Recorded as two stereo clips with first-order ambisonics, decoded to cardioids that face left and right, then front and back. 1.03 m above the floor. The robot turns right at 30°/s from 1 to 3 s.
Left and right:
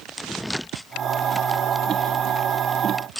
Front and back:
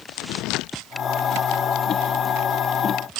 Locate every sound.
Only background noise.